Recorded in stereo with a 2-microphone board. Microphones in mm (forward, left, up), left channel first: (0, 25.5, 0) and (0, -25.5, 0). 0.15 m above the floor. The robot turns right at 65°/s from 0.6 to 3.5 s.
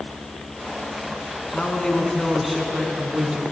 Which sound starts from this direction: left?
A man speaking, at 1.5 s.